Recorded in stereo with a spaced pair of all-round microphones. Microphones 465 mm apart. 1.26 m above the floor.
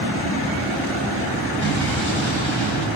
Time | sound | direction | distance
1.6 | an explosion | 70° right (ahead or behind) | 7 m